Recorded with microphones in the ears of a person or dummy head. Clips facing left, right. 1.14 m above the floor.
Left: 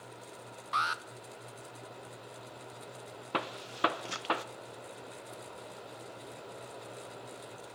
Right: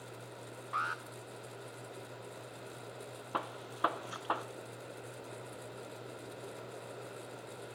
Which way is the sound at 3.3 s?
30° left (ahead or behind).